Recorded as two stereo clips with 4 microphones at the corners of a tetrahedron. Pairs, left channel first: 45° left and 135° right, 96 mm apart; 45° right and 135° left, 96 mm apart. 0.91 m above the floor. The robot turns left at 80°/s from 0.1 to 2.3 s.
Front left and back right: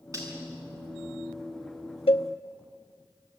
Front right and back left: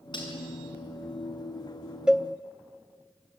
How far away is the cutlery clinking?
About 6 m.